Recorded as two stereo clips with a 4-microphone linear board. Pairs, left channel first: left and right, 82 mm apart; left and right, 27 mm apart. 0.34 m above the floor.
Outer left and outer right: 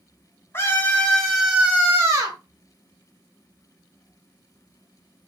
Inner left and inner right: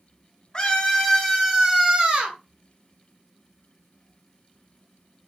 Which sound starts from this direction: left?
A scream, at 0.5 s.